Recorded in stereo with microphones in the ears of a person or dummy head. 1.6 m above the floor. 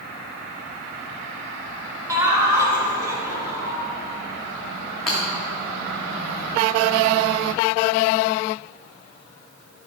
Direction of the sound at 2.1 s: 20° right (ahead or behind).